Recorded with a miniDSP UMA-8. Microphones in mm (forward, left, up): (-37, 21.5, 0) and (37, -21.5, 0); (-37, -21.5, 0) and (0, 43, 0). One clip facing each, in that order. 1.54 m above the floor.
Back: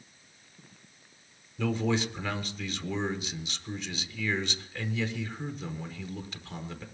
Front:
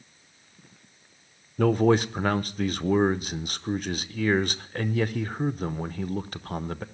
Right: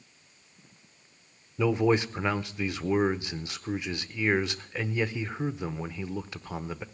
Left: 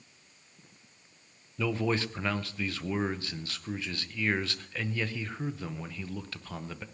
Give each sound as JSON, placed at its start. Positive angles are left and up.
{"t": 1.6, "sound": "a man speaking", "azimuth_deg": -55, "distance_m": 0.7}